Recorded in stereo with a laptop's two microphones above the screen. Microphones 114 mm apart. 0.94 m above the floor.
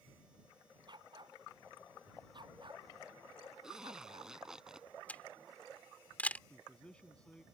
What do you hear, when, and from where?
0.9 s a dog barking: 45° right (ahead or behind)
3.6 s a zipper: 5° right (ahead or behind)
5.1 s a camera shutter: 10° left (ahead or behind)
6.5 s a man speaking: 10° left (ahead or behind)